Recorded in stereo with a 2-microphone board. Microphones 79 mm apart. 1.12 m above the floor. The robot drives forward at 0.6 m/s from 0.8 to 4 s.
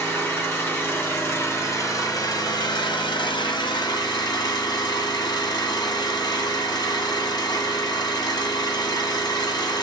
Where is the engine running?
30° left (ahead or behind), 1.7 m; by 9.8 s 55° left (ahead or behind), 0.9 m.